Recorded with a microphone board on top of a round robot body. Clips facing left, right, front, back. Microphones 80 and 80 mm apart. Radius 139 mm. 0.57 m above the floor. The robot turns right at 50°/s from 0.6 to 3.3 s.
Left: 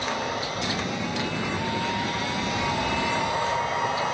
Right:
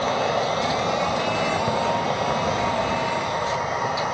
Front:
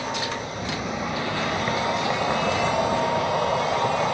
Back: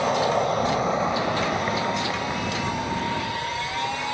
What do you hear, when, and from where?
0.0 s an insect: 145° right; by 4.2 s 10° right